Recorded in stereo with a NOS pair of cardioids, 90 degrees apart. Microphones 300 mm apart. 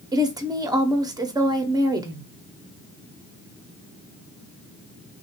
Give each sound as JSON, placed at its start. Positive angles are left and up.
{"t": 0.1, "sound": "a woman speaking", "azimuth_deg": -15, "distance_m": 0.9}